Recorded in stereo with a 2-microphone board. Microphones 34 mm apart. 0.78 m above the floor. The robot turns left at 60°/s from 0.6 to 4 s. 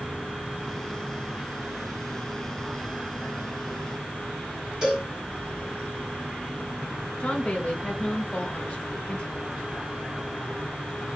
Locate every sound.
4.8 s a cowbell: 25° right (ahead or behind), 2 m
7.2 s a woman speaking: 35° left (ahead or behind), 0.8 m